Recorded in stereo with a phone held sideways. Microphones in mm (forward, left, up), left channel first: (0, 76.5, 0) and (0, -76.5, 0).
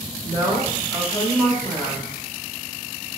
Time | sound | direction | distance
0.2 | a woman speaking | 25° left (ahead or behind) | 1.6 m